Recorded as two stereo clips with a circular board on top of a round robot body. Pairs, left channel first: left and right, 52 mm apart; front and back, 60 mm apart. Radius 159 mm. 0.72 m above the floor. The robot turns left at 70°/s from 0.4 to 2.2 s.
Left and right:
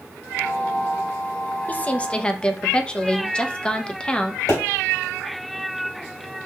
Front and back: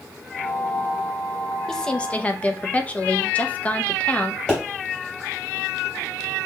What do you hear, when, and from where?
1.7 s a woman speaking: 75° left, 0.7 m; by 4.4 s 40° left, 0.7 m
4.5 s a pop: 80° left, 3 m